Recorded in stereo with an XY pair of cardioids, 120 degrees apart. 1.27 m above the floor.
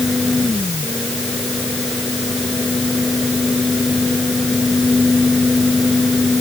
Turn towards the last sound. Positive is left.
turn(degrees=15)